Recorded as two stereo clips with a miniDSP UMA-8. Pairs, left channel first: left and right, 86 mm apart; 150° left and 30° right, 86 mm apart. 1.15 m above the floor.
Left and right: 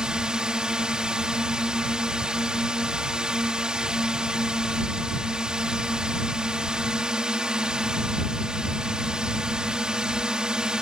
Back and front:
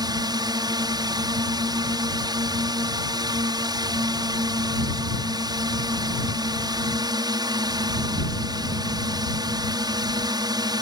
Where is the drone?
10° right.